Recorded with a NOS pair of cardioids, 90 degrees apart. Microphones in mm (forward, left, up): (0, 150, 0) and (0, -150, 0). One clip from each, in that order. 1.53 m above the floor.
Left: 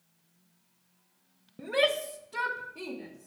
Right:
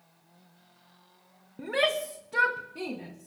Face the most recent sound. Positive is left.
turn(degrees=-65)